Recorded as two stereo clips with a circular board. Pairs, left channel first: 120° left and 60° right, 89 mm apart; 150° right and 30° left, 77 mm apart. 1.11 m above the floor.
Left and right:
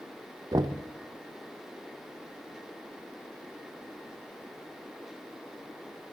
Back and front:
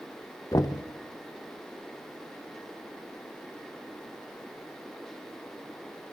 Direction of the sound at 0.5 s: 105° right.